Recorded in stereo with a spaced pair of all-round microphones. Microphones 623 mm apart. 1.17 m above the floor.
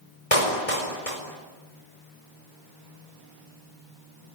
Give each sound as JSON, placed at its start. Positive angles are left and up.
{"t": 0.3, "sound": "a clap", "side_deg": 60, "distance_m": 4.5}